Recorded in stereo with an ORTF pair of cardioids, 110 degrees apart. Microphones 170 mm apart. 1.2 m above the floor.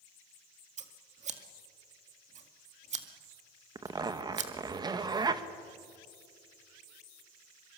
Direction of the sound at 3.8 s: 25° right.